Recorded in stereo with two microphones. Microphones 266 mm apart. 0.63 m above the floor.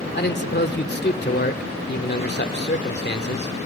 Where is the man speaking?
40° left (ahead or behind), 1.9 m.